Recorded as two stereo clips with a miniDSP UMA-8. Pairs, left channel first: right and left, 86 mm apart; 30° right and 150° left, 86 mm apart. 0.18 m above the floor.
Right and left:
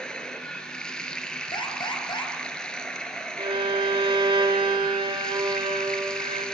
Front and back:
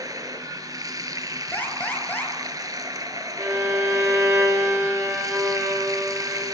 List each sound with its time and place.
0.0 s running water: 170° right, 2.5 m
1.5 s an alarm: 100° right, 4.5 m
3.4 s a violin: 90° left, 9 m